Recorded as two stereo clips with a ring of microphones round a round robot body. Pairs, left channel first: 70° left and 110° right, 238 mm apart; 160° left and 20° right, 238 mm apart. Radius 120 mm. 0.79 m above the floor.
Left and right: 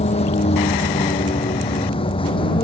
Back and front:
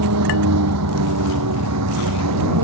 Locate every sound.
0.0 s a vehicle: straight ahead; by 2.6 s 5° right